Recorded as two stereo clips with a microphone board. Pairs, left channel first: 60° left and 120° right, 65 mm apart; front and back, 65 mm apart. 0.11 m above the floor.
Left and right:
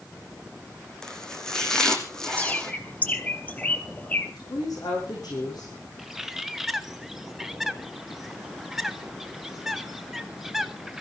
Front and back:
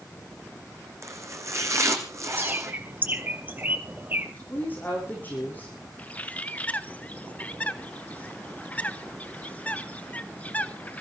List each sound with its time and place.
1.0 s chopping: 140° left, 1.9 m
2.4 s a bird: 125° left, 1.6 m
4.4 s a woman speaking: 65° left, 7 m
6.0 s a bird: 40° right, 0.8 m